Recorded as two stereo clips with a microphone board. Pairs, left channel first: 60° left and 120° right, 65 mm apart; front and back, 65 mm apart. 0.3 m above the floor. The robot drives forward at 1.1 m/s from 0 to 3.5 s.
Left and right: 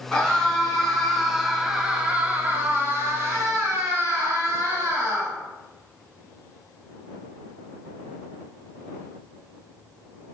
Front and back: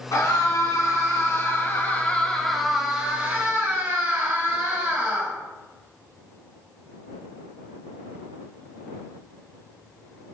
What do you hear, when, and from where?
0.1 s a scream: 20° right, 3 m; by 5.3 s 140° right, 1.8 m